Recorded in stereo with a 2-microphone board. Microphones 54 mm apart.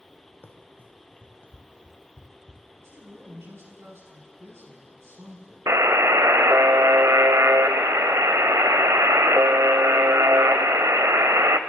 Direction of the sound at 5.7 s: 70° right (ahead or behind).